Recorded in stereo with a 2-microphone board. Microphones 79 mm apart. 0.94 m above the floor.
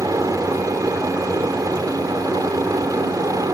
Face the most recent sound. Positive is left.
turn(degrees=-45)  # may be behind; listen again after turning